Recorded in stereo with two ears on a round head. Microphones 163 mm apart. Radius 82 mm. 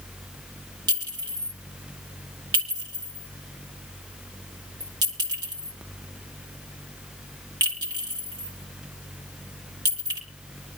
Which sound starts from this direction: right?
A clink, at 0.9 s.